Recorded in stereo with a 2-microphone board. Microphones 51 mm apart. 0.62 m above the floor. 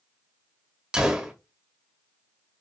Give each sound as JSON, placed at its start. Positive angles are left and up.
{"t": 0.9, "sound": "a gunshot", "side_deg": -15, "distance_m": 1.1}